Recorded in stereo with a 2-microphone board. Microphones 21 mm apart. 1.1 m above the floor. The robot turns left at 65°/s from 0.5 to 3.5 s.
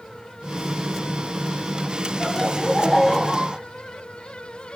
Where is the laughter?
60° left, 0.7 m; by 3.6 s 25° right, 0.7 m.